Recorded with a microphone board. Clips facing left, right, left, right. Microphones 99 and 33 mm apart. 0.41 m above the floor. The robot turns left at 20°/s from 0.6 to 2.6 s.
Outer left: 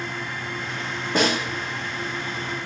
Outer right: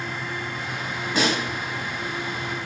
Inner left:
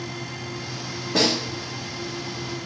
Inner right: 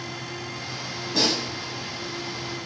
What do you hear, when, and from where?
1.1 s a snare drum: 50° left (ahead or behind), 1.9 m; by 1.4 s 45° left (ahead or behind), 1.9 m